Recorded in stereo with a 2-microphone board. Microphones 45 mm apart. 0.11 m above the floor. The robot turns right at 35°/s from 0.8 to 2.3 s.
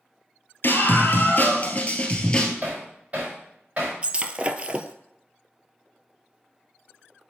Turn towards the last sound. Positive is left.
turn(degrees=-25)  # may be behind; listen again after turning